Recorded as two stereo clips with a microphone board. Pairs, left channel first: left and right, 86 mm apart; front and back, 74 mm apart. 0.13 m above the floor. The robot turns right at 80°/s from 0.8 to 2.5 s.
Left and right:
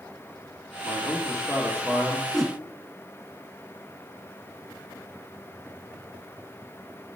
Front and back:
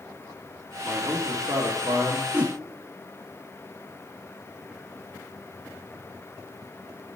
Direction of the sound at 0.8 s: 105° left.